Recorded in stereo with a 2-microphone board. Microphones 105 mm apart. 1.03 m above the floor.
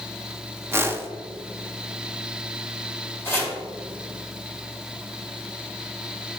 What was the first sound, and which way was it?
A whoosh, 25° right (ahead or behind).